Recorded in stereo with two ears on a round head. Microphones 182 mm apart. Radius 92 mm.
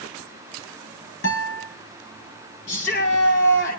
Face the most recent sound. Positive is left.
turn(degrees=55)  # may be behind; listen again after turning